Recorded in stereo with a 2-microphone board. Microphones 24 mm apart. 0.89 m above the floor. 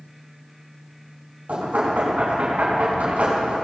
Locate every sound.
1.5 s knocking: 80° right, 6 m